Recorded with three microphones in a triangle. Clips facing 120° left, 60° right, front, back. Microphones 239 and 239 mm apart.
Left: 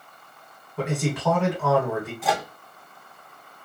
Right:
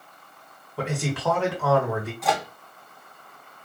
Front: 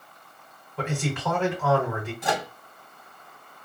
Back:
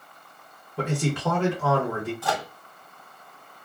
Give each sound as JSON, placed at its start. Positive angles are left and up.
{"t": 0.8, "sound": "a man speaking", "azimuth_deg": -150, "distance_m": 1.9}
{"t": 2.2, "sound": "a microwave", "azimuth_deg": 35, "distance_m": 0.6}